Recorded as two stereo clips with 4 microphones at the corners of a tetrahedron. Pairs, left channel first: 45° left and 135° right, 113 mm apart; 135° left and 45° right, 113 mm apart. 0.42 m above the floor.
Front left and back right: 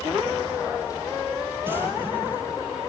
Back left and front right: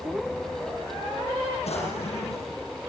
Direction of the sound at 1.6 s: 155° left.